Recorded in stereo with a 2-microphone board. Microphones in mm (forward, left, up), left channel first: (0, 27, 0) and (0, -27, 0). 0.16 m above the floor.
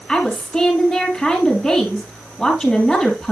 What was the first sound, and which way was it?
A woman speaking, 5° left (ahead or behind).